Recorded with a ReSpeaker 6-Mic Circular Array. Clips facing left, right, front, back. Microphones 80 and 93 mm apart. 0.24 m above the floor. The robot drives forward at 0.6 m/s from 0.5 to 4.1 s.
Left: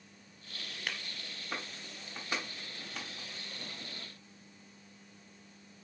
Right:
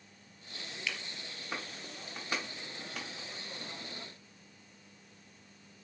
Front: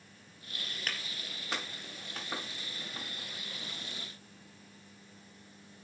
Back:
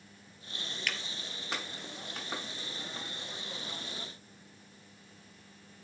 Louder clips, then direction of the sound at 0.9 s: Even, back 2 dB; 50° left.